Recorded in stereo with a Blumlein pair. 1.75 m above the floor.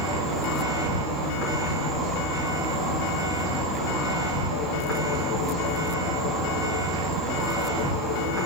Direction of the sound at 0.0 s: 20° right.